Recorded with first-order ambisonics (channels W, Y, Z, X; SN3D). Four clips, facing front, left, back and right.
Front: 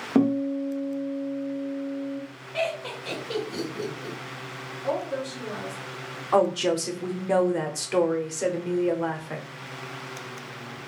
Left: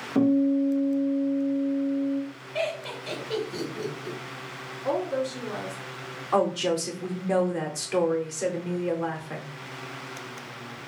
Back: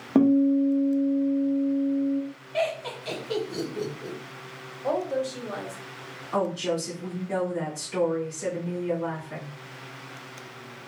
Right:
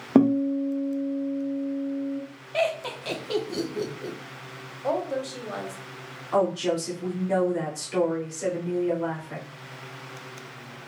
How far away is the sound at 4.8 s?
About 1.4 m.